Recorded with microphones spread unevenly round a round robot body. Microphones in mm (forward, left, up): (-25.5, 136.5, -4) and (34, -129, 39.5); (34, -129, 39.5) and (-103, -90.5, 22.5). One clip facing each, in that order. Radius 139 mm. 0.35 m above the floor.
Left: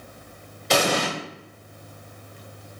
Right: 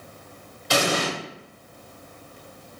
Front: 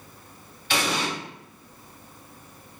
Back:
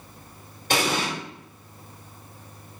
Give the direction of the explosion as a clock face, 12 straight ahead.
7 o'clock.